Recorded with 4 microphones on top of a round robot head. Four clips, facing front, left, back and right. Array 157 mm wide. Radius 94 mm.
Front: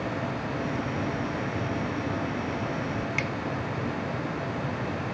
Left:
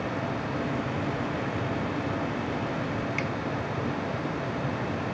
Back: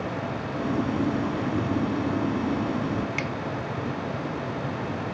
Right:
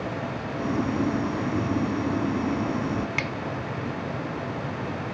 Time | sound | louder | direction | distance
0.6 | boiling | right 9 dB, back 8 dB | 130° right | ?
3.2 | a finger snap | even, back 1 dB | 100° right | ?